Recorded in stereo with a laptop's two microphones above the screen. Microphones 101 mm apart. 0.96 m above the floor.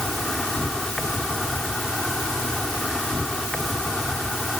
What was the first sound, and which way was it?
An insect, 5° left (ahead or behind).